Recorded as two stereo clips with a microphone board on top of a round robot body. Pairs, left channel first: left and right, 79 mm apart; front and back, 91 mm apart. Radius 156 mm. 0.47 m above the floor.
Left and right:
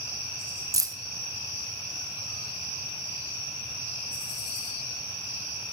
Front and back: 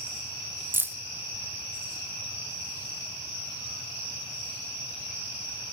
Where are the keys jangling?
115° right, 0.7 m.